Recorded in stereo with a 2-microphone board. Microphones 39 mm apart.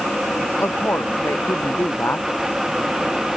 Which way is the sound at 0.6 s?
70° left (ahead or behind).